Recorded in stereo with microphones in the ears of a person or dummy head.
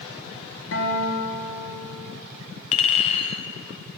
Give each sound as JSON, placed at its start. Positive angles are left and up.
{"t": 0.7, "sound": "a guitar", "side_deg": 65, "distance_m": 1.4}
{"t": 2.7, "sound": "a clink", "side_deg": 35, "distance_m": 0.6}